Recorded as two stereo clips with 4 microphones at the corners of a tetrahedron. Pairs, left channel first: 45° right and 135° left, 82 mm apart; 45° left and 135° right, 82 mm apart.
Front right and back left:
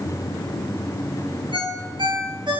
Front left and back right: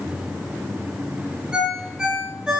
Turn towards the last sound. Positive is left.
turn(degrees=145)